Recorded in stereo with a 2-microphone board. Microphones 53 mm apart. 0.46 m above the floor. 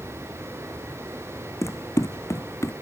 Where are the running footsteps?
70° left (ahead or behind); by 2.7 s 65° left (ahead or behind).